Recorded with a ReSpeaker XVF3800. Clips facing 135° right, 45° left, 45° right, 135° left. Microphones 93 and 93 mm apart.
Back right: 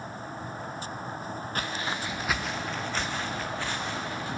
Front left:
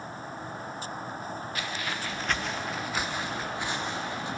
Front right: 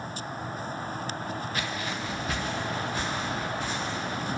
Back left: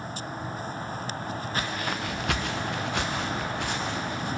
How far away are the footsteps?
About 0.8 m.